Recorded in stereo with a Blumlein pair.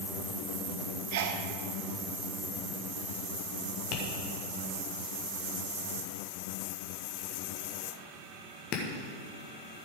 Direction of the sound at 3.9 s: 35° left.